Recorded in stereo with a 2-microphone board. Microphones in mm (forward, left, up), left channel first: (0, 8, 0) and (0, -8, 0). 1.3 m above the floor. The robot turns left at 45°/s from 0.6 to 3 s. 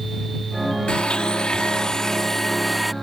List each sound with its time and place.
0.9 s a blender: 85° left; by 2.9 s 5° right